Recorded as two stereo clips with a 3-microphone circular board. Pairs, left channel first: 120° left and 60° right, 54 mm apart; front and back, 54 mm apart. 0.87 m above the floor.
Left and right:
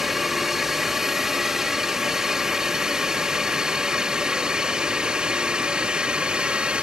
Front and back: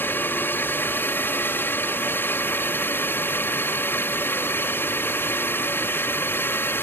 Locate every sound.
0.0 s a drone: 20° left; by 6.8 s 5° left